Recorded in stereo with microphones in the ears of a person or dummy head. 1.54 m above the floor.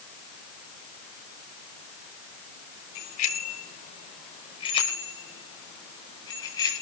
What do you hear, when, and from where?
3.0 s a bicycle bell: 65° left (ahead or behind), 3 m; by 6.8 s 30° left (ahead or behind), 8 m